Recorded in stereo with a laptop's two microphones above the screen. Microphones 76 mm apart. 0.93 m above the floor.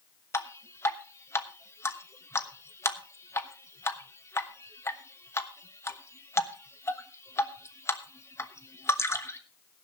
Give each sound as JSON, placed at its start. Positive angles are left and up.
{"t": 0.3, "sound": "dripping", "side_deg": 35, "distance_m": 1.1}